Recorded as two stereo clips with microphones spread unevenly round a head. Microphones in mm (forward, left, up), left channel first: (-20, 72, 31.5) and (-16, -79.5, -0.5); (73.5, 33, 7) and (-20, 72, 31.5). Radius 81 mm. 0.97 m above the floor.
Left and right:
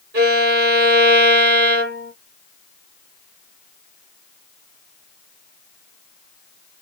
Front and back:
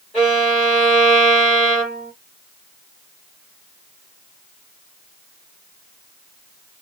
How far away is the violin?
About 1.3 m.